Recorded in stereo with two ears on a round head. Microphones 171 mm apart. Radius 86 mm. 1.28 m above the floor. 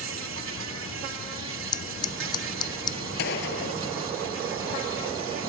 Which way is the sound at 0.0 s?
75° right (ahead or behind).